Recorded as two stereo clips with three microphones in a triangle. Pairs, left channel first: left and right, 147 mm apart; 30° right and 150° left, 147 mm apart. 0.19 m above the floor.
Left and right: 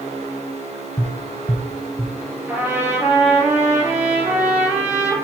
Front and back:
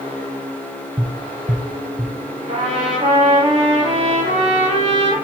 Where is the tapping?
125° left, 1.0 m.